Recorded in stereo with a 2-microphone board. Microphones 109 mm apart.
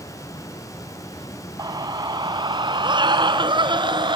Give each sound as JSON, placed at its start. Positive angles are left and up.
{"t": 1.6, "sound": "a scream", "side_deg": -35, "distance_m": 1.2}